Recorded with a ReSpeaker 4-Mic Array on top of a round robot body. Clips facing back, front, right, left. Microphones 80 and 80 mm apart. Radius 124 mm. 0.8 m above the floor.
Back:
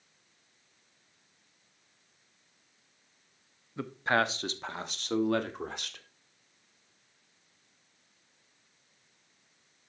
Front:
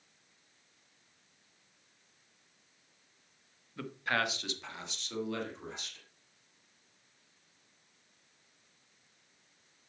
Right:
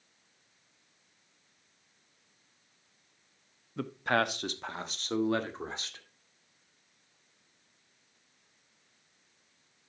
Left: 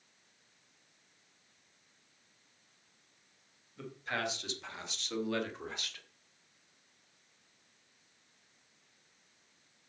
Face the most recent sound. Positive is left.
turn(degrees=-150)